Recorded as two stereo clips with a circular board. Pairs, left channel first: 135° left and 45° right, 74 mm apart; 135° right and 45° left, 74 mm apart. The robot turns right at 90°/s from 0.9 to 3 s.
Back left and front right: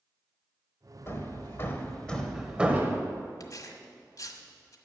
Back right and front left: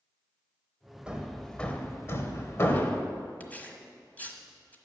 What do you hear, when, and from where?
1.1 s hammering: 110° left, 1.2 m; by 3.0 s 75° right, 1.2 m
3.4 s tearing paper: 160° left, 1.2 m